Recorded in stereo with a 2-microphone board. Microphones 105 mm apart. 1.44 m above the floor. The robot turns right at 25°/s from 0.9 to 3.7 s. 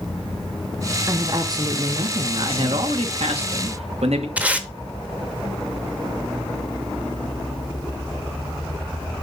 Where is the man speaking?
125° right, 1.4 m; by 4.3 s 95° right, 1.4 m.